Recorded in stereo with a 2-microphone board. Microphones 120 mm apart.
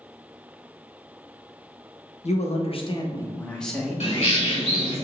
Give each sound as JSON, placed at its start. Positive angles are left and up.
{"t": 2.2, "sound": "a man speaking", "side_deg": 75, "distance_m": 0.8}
{"t": 4.0, "sound": "a bird", "side_deg": 65, "distance_m": 1.2}